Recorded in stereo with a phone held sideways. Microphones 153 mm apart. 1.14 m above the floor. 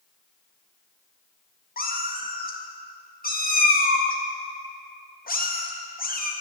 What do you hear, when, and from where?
1.8 s a cat meowing: 70° left (ahead or behind), 0.7 m